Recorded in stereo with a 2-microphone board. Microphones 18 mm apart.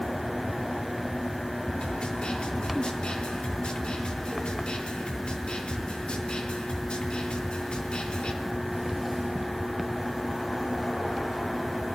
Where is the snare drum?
80° left, 3.5 m.